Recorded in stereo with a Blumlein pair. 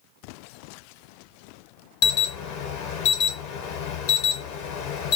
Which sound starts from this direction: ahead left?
An alarm, at 2.0 s.